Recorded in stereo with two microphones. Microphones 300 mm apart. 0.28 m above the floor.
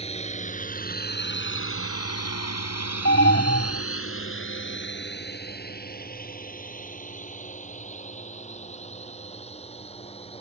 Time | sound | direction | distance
0.0 | a drone | 20° left (ahead or behind) | ?
3.0 | an alarm | 40° left (ahead or behind) | ?